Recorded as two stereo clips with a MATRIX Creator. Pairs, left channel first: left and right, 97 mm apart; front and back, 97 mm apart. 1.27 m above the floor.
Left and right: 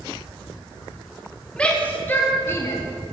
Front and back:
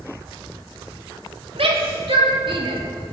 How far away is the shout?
About 3 m.